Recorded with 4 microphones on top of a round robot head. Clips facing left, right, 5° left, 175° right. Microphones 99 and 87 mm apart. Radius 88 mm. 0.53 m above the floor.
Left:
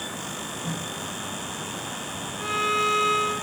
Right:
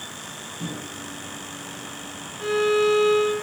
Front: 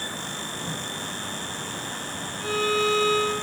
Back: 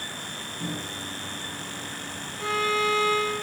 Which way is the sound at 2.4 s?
170° right.